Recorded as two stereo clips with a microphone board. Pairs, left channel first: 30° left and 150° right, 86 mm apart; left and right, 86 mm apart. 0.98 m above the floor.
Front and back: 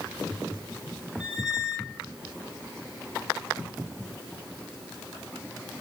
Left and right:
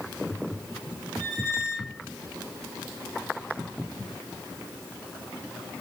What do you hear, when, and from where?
1.2 s a squeak: 65° right, 3 m